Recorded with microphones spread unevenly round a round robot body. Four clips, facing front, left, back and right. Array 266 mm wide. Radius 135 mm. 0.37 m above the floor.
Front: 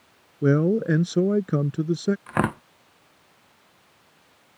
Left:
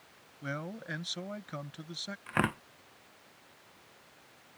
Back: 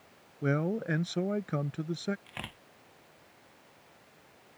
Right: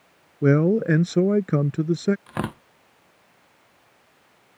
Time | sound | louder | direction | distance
0.4 | a man speaking | right 22 dB, front 10 dB | 55° right | ?
2.3 | tearing paper | right 2 dB, front 21 dB | 10° right | ?